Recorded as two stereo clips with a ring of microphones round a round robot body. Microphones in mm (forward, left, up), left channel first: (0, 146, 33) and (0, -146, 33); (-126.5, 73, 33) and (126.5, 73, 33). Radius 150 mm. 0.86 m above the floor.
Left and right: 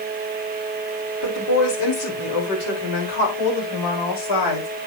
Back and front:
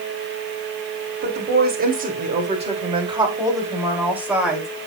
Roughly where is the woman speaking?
Ahead left.